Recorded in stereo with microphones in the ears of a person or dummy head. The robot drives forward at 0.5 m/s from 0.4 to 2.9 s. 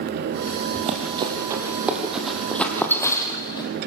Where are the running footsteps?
35° right (ahead or behind), 2 m; by 3.7 s 25° left (ahead or behind), 2.5 m.